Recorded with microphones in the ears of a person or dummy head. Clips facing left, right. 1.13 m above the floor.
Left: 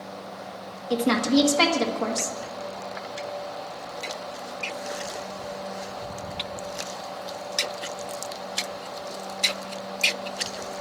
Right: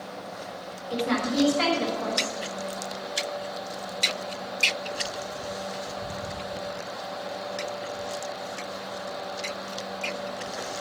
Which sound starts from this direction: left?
A woman speaking, at 0.9 s.